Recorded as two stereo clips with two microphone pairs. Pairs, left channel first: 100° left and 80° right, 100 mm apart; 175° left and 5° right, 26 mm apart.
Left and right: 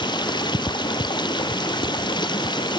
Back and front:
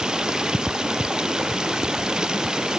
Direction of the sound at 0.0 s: 55° left.